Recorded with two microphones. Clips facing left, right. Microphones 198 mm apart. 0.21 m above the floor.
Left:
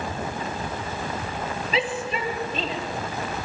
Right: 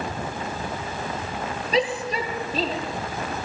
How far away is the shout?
About 5 m.